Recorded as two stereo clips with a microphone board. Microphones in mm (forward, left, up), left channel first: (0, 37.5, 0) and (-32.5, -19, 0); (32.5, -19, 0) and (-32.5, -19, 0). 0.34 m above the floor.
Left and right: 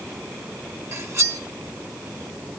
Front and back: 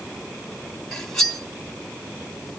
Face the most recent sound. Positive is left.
turn(degrees=-80)